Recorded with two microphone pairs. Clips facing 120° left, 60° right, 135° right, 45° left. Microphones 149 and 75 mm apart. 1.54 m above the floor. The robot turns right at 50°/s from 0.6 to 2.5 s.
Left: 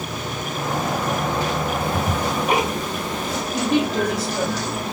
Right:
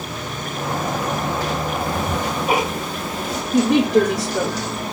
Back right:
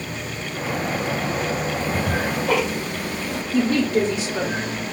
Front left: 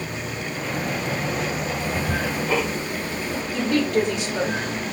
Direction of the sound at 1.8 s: Straight behind.